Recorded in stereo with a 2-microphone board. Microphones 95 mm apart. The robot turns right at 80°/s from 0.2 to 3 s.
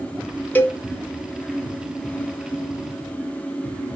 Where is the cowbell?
20° left (ahead or behind), 1.0 m; by 0.8 s 30° left (ahead or behind), 1.0 m.